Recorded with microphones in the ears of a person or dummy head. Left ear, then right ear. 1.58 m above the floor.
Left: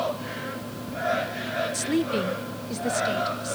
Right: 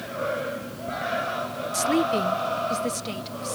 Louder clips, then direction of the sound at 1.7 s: Right 3 dB; 15° right (ahead or behind).